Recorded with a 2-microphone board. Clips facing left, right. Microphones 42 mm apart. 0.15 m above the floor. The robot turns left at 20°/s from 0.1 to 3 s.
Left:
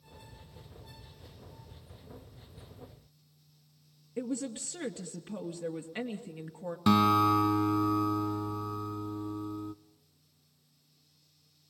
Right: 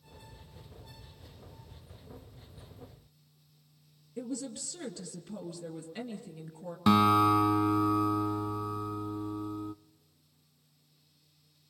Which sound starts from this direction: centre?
A guitar, at 6.9 s.